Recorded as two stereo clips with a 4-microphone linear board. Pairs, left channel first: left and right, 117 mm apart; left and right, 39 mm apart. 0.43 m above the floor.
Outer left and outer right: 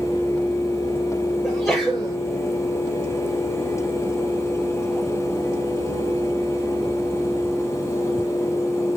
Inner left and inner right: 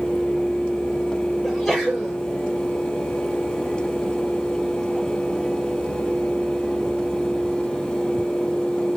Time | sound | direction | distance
1.4 | a sneeze | 5° left (ahead or behind) | 5.5 m